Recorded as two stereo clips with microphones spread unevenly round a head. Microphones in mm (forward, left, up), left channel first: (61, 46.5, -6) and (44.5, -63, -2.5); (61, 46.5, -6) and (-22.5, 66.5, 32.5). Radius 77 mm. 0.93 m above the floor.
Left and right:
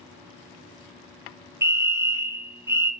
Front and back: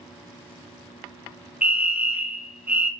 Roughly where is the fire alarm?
Right.